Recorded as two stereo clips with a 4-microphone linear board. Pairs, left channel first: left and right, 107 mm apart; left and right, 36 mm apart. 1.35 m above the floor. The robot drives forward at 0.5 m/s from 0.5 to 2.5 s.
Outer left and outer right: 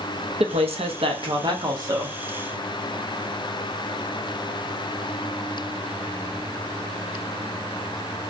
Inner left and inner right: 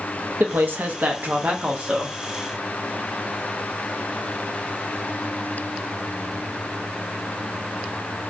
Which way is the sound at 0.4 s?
70° right (ahead or behind).